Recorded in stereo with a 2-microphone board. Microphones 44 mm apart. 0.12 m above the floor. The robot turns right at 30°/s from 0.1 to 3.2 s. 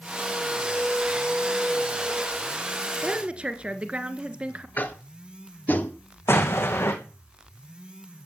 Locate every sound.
3.0 s a woman speaking: 25° right (ahead or behind), 1.6 m
4.8 s tapping: 45° left (ahead or behind), 2 m
6.3 s an explosion: 70° left (ahead or behind), 3 m